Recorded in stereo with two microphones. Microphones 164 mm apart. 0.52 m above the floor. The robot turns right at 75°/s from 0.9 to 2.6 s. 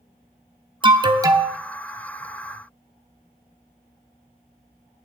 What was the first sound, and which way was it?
An alarm, 70° right.